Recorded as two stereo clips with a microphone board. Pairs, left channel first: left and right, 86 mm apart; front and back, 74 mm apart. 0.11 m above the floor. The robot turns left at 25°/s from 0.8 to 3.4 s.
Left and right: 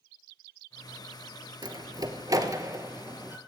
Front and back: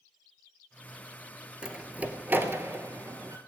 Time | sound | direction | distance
1.6 | a door slam | 105° right | 1.2 m